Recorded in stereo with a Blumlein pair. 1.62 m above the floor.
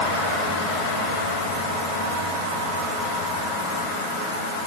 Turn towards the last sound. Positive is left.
No sound to turn to.